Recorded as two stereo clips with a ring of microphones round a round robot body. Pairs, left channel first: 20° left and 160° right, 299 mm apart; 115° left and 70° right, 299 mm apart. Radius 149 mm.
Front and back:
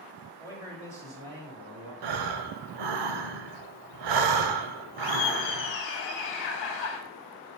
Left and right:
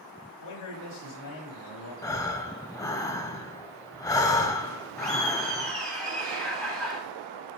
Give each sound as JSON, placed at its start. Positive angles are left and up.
{"t": 0.4, "sound": "a man speaking", "azimuth_deg": 115, "distance_m": 2.0}
{"t": 2.0, "sound": "breathing", "azimuth_deg": -170, "distance_m": 0.7}
{"t": 5.0, "sound": "laughter", "azimuth_deg": -25, "distance_m": 2.0}